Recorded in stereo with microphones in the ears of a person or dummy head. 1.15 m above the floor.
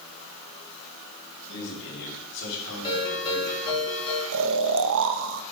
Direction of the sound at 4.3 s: 70° right (ahead or behind).